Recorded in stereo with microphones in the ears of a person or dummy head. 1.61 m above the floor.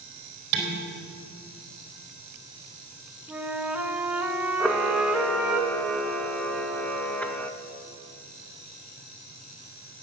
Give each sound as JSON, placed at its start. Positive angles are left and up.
{"t": 0.5, "sound": "dishes clattering", "side_deg": -60, "distance_m": 3.5}
{"t": 3.3, "sound": "a flute", "side_deg": -5, "distance_m": 1.1}
{"t": 4.6, "sound": "a camera shutter", "side_deg": 5, "distance_m": 0.6}